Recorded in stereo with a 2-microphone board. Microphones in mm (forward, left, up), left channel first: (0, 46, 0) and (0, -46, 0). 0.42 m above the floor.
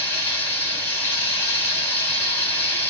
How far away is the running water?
About 2 m.